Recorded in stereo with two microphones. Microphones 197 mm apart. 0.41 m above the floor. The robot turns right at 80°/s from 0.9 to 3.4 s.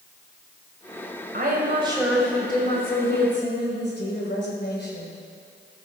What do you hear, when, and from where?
1.3 s a woman speaking: 70° right, 2 m; by 5.1 s 95° left, 2 m